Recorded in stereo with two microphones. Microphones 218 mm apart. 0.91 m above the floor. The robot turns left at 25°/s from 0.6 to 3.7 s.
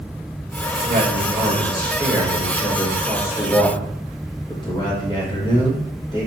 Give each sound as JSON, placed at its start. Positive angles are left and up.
{"t": 0.7, "sound": "a man speaking", "azimuth_deg": -130, "distance_m": 3.0}